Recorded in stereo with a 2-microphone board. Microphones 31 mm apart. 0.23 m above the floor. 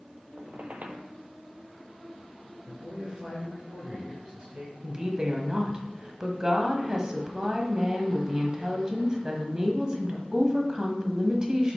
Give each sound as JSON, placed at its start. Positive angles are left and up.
{"t": 0.4, "sound": "a squeak", "side_deg": -60, "distance_m": 0.7}
{"t": 2.6, "sound": "a man speaking", "side_deg": -25, "distance_m": 3.0}
{"t": 4.8, "sound": "a woman speaking", "side_deg": -25, "distance_m": 1.0}